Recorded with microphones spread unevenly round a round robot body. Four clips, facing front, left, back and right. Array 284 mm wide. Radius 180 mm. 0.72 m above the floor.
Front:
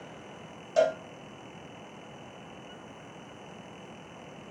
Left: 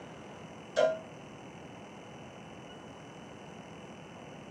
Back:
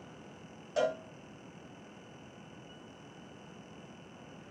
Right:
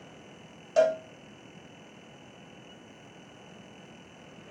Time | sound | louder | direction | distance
0.8 | a cowbell | right 4 dB, front 7 dB | 65° right | 1.6 m